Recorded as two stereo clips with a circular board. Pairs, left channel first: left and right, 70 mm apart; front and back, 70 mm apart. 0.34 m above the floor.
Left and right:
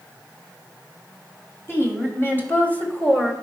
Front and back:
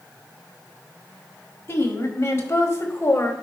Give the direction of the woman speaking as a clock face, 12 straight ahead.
10 o'clock.